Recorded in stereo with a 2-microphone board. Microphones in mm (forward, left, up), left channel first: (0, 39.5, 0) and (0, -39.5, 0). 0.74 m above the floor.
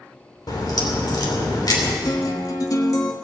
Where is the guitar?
50° left (ahead or behind), 1.4 m.